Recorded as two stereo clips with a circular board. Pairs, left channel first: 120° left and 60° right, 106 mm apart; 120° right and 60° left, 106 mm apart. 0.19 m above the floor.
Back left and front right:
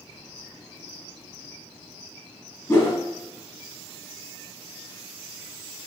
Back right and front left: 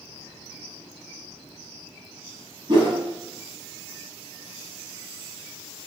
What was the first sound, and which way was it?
A whoosh, 70° left.